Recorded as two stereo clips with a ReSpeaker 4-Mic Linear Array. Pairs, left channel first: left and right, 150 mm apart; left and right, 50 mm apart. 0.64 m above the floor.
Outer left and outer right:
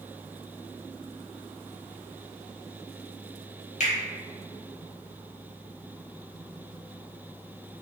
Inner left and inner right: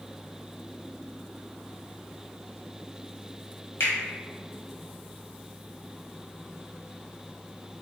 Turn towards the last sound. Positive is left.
turn(degrees=60)  # may be behind; listen again after turning